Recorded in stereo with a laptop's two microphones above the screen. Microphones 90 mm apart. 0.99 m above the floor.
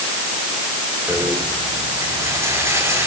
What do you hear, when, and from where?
1.1 s a rattle: 30° right (ahead or behind), 6 m